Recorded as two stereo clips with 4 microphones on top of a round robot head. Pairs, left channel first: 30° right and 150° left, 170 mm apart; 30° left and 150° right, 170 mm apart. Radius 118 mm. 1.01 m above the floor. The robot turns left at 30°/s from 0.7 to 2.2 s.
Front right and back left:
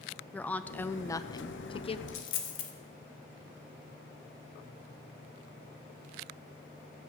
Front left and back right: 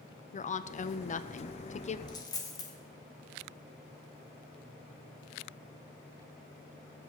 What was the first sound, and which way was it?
A woman speaking, 45° left.